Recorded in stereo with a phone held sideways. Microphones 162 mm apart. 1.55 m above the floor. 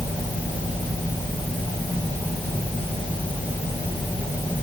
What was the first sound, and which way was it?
Only background noise.